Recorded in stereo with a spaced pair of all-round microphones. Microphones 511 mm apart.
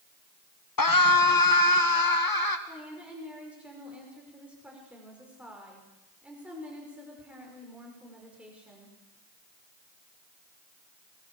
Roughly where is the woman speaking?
Centre.